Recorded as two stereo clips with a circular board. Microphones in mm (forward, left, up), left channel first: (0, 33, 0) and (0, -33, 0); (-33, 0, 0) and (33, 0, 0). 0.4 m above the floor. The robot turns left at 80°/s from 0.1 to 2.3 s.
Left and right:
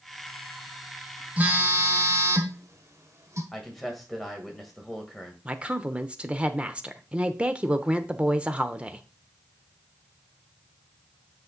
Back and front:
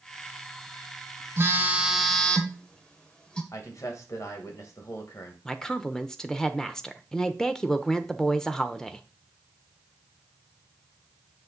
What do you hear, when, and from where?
1.4 s a phone buzzing: 30° right, 1.4 m; by 3.4 s 105° right, 1.4 m
3.5 s a man speaking: straight behind, 2.5 m
5.5 s a woman speaking: 115° right, 0.7 m